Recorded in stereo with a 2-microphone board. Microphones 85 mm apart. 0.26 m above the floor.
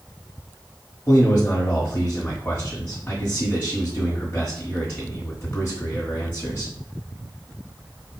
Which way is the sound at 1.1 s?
30° left (ahead or behind).